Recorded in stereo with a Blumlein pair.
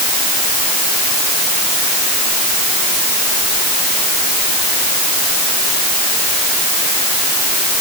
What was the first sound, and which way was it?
Only background noise.